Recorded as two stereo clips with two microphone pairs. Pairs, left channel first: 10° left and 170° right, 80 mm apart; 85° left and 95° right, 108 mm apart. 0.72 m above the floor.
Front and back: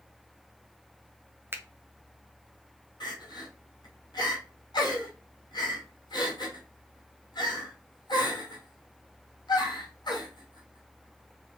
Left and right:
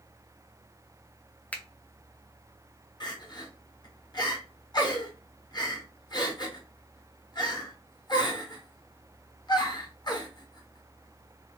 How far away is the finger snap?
About 0.5 m.